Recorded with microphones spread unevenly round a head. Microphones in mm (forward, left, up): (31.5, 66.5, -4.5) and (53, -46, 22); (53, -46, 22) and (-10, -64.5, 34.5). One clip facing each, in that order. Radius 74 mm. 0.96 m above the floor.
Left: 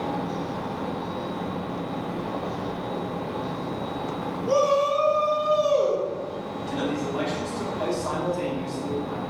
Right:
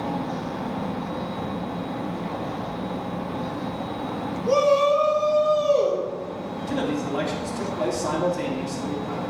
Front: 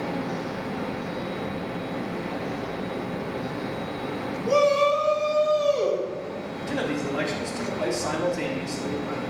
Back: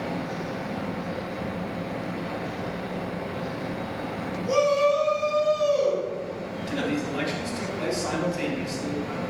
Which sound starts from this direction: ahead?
A shout, at 4.5 s.